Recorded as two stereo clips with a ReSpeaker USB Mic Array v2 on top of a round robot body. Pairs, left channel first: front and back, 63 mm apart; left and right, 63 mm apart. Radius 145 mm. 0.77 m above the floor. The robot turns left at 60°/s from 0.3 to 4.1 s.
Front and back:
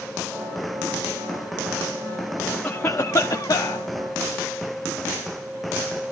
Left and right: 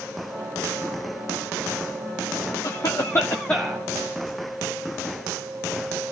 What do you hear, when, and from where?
2.6 s a cough: 70° left, 1.7 m; by 3.8 s straight ahead, 1.7 m